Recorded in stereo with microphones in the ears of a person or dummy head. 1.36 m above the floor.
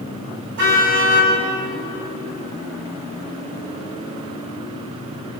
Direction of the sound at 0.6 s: 65° right (ahead or behind).